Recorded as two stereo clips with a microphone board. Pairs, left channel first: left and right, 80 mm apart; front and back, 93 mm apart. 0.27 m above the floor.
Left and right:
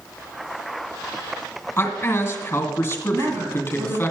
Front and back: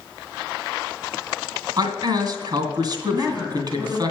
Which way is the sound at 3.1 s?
110° right.